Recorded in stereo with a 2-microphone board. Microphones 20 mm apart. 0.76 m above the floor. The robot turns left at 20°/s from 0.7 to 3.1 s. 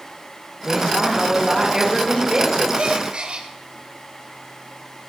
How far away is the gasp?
About 1.3 m.